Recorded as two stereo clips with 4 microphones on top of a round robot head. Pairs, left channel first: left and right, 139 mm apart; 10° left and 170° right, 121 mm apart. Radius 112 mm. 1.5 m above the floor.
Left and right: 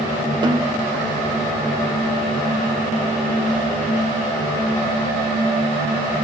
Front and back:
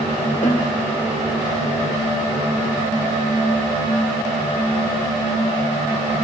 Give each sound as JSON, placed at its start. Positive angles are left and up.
{"t": 0.4, "sound": "a snare drum", "azimuth_deg": -35, "distance_m": 2.0}